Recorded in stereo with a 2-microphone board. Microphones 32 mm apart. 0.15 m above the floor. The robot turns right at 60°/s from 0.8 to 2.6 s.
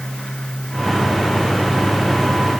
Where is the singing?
No singing in this recording.